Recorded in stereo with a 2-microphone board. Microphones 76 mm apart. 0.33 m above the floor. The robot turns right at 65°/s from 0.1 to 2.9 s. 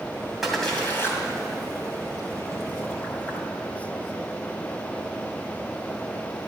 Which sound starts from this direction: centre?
A splash, at 0.4 s.